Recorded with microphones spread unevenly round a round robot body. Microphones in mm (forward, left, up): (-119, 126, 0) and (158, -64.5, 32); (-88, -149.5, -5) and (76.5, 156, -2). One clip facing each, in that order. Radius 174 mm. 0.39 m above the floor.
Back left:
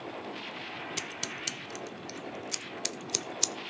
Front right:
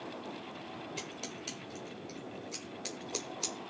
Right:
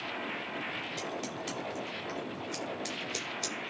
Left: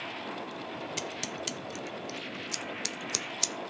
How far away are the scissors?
About 0.6 m.